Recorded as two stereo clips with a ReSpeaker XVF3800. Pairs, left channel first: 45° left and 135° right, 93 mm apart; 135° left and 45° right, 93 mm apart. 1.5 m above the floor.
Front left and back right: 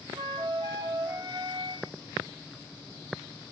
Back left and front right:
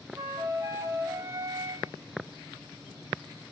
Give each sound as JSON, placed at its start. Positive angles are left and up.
{"t": 0.1, "sound": "a flute", "azimuth_deg": -100, "distance_m": 0.6}